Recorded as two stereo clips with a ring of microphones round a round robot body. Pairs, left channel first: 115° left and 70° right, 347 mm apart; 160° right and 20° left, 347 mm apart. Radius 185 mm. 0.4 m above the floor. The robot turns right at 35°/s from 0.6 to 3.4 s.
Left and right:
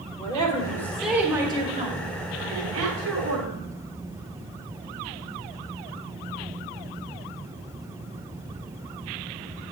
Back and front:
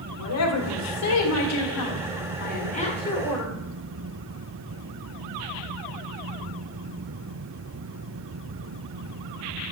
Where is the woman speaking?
175° right, 1.7 m; by 3.5 s 75° right, 1.7 m.